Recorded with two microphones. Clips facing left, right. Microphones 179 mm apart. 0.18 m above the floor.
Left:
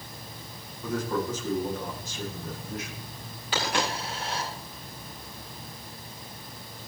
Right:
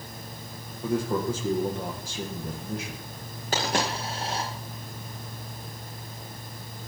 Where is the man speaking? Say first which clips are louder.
Right 3 dB; 30° right (ahead or behind), 6.5 m.